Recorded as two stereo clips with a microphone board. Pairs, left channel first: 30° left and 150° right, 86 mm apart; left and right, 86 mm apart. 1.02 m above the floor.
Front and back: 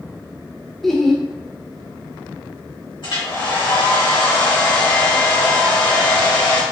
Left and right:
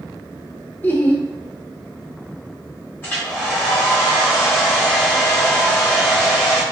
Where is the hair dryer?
25° left, 2.0 m.